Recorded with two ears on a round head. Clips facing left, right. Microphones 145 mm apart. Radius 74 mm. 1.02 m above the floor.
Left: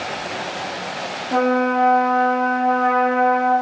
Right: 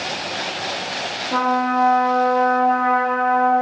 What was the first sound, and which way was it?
A trumpet, 25° left (ahead or behind).